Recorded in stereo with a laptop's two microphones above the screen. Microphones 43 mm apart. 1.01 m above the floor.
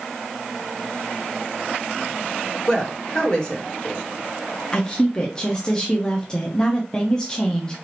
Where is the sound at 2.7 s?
15° left (ahead or behind), 1.3 m.